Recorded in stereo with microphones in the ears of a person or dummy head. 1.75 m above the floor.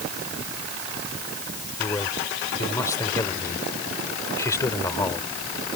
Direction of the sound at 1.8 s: 15° left (ahead or behind).